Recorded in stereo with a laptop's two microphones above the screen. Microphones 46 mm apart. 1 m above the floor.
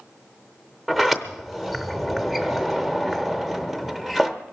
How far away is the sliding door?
About 0.7 m.